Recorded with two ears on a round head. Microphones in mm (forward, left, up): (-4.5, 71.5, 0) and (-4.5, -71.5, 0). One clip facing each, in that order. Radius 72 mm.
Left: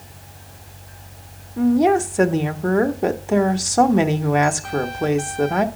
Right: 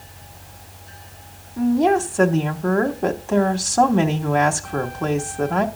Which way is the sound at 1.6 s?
20° left (ahead or behind).